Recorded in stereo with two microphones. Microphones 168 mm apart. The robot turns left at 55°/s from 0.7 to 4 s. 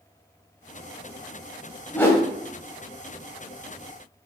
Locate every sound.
1.9 s a whoosh: 10° left (ahead or behind), 0.7 m; by 2.2 s 25° left (ahead or behind), 0.7 m